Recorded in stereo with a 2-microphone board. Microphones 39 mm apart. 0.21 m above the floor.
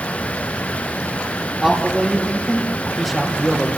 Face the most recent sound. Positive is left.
turn(degrees=0)  # may be behind; listen again after turning